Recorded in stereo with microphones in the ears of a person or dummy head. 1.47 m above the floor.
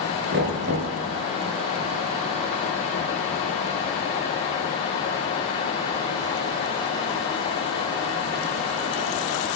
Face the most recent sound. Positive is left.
turn(degrees=-50)  # may be behind; listen again after turning